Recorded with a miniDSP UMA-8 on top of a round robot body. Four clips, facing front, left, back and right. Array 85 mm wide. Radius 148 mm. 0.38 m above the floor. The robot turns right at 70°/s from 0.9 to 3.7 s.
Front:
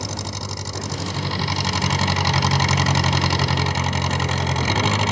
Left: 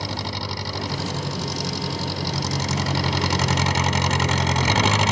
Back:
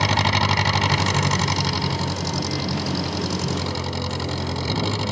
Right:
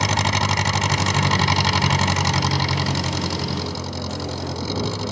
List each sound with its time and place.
0.0 s an engine running: 135° right; by 5.1 s 60° left